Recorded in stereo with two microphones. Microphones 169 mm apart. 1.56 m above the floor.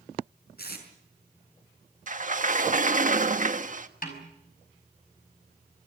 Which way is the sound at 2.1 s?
50° right (ahead or behind).